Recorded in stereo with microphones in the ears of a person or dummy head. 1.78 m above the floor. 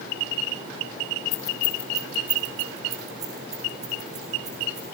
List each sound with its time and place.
1.3 s keys jangling: 25° left (ahead or behind), 0.6 m; by 4.8 s 20° right (ahead or behind), 4 m